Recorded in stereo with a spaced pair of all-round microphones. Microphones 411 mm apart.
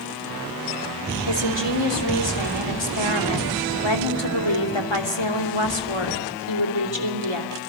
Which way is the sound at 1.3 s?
85° left.